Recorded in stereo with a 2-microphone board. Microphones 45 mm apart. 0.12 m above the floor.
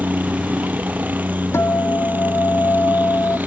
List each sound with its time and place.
0.0 s a helicopter: 40° right (ahead or behind)
1.5 s a guitar: 70° left (ahead or behind)